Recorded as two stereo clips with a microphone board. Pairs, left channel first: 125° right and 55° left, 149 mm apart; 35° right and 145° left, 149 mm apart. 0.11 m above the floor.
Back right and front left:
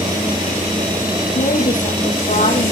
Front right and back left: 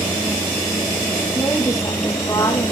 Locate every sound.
1.4 s a woman speaking: 100° right, 4 m